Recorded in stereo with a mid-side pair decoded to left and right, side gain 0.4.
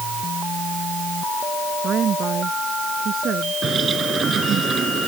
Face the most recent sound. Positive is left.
turn(degrees=-55)